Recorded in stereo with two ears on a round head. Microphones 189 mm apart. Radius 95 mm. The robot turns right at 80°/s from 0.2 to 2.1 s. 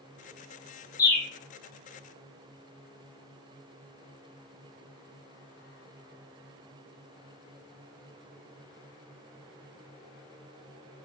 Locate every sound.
1.0 s a bird: 15° left (ahead or behind), 0.6 m; by 1.3 s 5° left (ahead or behind), 0.6 m